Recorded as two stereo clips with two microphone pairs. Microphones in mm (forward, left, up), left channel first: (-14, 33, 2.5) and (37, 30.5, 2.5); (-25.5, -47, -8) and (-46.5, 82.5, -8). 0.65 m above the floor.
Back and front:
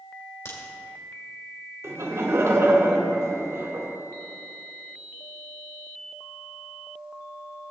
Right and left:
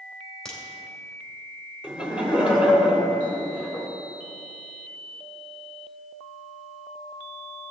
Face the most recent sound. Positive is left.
turn(degrees=15)